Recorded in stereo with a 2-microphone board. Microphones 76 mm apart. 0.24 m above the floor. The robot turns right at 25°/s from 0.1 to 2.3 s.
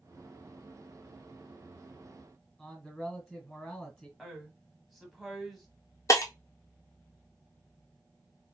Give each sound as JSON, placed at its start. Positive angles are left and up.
{"t": 2.6, "sound": "a man speaking", "side_deg": 5, "distance_m": 1.7}
{"t": 4.2, "sound": "a woman speaking", "side_deg": 0, "distance_m": 1.3}
{"t": 6.1, "sound": "breaking glass", "side_deg": 45, "distance_m": 0.8}